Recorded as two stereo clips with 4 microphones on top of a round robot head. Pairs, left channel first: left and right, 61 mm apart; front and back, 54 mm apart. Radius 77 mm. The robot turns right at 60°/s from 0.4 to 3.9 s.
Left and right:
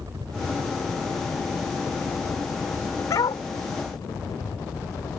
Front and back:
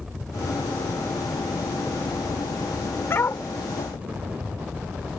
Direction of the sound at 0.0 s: 95° right.